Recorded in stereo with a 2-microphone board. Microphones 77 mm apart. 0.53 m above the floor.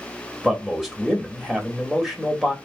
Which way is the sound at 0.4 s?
5° right (ahead or behind).